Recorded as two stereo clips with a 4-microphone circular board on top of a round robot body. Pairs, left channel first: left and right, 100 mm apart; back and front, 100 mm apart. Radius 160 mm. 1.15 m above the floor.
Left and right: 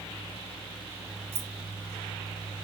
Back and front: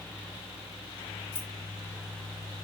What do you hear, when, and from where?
1.3 s keys jangling: 110° right, 0.6 m